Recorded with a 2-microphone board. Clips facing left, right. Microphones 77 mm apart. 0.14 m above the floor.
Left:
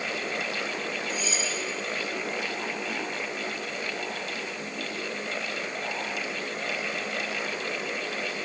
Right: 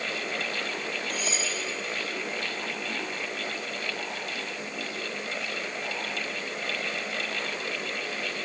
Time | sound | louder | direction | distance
1.1 | cutlery clinking | left 1 dB | 60° right (ahead or behind) | 6.5 m